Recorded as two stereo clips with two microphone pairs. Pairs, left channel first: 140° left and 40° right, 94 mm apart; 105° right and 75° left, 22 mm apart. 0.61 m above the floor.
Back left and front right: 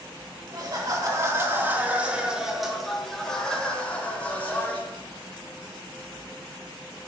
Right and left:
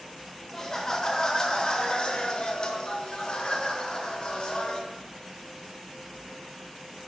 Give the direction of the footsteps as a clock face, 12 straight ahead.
No footsteps in this recording.